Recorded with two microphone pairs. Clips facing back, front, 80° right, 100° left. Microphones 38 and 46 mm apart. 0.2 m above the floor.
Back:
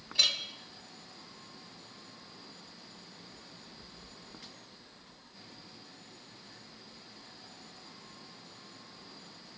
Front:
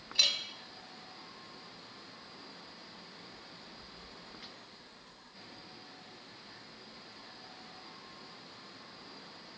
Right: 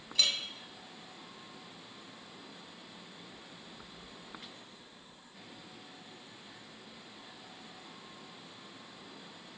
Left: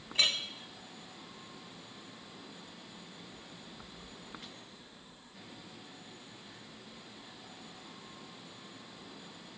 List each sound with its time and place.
0.1 s a clink: 80° left, 0.7 m